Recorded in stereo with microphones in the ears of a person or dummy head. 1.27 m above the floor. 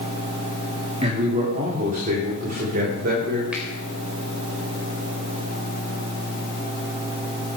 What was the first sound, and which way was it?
A man speaking, 35° right (ahead or behind).